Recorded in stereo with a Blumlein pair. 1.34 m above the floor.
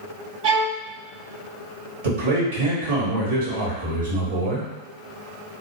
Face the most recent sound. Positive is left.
turn(degrees=-65)